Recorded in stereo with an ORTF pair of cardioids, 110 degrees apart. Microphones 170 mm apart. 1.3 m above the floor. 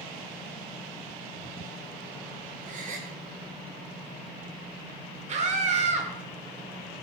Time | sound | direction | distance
2.6 | a gasp | 50° right | 2.5 m
5.3 | a scream | 40° right | 4 m